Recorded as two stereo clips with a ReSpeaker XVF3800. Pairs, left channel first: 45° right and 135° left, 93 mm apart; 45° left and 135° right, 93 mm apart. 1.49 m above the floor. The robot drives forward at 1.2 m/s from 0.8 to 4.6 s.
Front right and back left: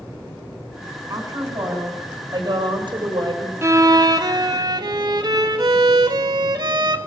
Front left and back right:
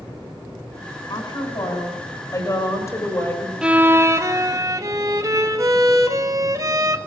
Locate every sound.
1.1 s a woman speaking: 80° left, 6.5 m; by 3.5 s 105° left, 7 m
3.6 s a violin: 150° left, 0.6 m; by 7.0 s 175° left, 1.5 m